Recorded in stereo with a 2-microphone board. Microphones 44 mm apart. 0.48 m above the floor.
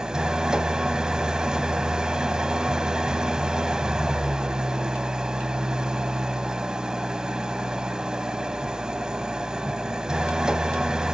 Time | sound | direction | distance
0.0 | an engine running | 20° right (ahead or behind) | 1.0 m